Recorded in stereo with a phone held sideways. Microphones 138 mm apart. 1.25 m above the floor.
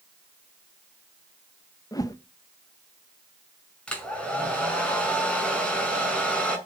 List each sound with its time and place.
1.9 s a whoosh: 25° left (ahead or behind), 0.9 m
3.9 s a hair dryer: 5° left (ahead or behind), 5 m